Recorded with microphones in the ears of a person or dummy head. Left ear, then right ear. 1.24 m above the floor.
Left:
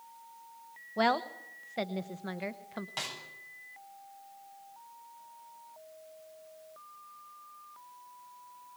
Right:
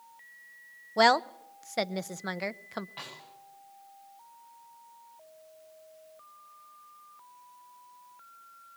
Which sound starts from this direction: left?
A snare drum, at 3.0 s.